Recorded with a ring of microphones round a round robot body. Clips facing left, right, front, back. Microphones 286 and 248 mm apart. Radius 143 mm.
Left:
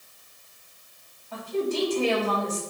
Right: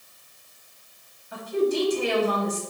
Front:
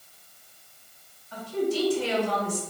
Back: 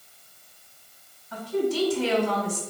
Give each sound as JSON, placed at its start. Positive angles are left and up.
{"t": 1.3, "sound": "a woman speaking", "azimuth_deg": -165, "distance_m": 3.0}